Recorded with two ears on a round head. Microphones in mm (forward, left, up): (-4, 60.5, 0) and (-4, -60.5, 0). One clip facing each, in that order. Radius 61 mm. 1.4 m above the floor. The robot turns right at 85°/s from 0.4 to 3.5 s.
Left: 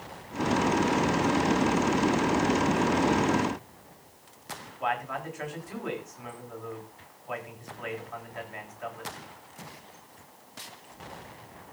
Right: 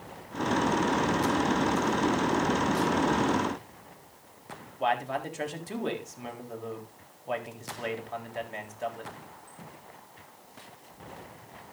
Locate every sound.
4.8 s a man speaking: 35° right (ahead or behind), 3.5 m